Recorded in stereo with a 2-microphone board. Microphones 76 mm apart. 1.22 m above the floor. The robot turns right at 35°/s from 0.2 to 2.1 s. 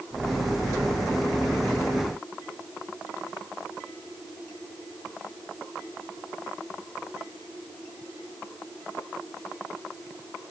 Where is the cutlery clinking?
I don't hear cutlery clinking.